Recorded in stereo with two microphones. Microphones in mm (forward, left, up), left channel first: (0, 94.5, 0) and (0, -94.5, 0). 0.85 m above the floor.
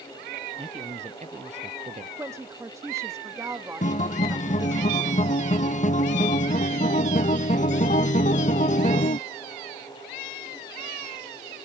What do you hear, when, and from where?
0.6 s a man speaking: 35° right (ahead or behind)
2.2 s a woman speaking: 15° right (ahead or behind)
3.8 s a guitar: 40° left (ahead or behind)